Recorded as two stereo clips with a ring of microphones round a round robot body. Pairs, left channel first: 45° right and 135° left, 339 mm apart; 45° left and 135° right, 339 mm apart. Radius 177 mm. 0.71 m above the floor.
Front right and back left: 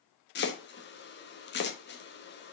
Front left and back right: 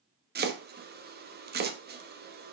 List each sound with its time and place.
0.3 s chopping: 90° right, 1.2 m